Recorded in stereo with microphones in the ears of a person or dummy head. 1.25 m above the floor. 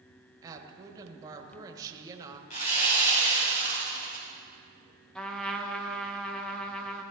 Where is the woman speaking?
20° right (ahead or behind), 1.5 m.